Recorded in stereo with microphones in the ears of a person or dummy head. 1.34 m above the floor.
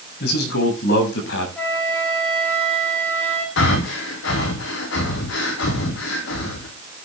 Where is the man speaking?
65° left (ahead or behind), 7.5 m; by 1.5 s 75° left (ahead or behind), 8 m.